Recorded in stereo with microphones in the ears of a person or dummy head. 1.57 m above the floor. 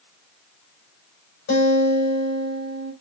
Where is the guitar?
60° left (ahead or behind), 5.5 m.